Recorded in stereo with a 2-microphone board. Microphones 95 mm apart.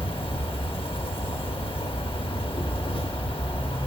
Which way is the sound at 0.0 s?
70° left (ahead or behind).